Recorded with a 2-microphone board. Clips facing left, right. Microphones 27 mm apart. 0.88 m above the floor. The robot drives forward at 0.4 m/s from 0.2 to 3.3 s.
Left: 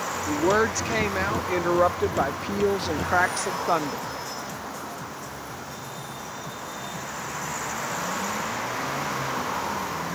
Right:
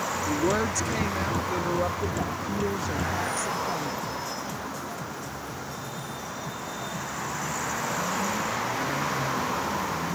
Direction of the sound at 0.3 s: 25° left (ahead or behind).